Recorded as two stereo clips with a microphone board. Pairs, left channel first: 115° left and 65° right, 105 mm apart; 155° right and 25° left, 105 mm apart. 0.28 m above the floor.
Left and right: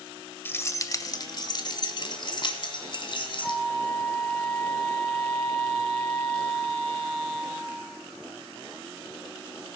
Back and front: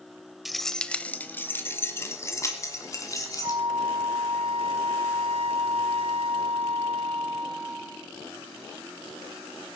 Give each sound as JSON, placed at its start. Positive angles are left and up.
{"t": 0.5, "sound": "keys jangling", "azimuth_deg": 110, "distance_m": 0.7}
{"t": 3.4, "sound": "a flute", "azimuth_deg": 30, "distance_m": 2.0}